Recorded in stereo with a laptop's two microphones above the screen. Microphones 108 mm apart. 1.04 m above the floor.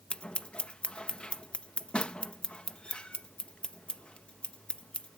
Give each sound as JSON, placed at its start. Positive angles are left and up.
{"t": 0.1, "sound": "scissors", "side_deg": 10}